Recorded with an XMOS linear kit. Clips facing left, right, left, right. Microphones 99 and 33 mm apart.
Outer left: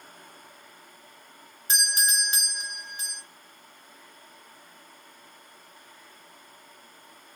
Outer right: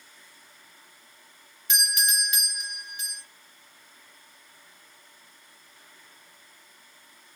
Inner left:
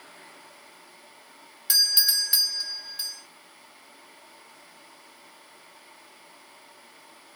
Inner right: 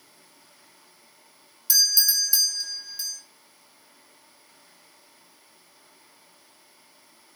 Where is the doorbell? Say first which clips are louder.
Outer left 1 dB, even; 35° left (ahead or behind), 1.2 m.